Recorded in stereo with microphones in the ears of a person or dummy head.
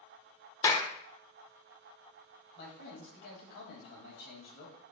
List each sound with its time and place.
0.6 s a clap: 20° left (ahead or behind), 0.7 m
2.5 s a man speaking: 60° left (ahead or behind), 1.9 m